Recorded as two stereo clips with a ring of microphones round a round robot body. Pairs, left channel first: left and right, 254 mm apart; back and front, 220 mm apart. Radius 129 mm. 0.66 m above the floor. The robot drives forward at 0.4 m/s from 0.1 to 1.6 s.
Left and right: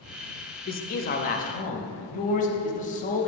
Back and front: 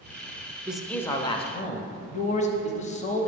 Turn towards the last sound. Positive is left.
turn(degrees=135)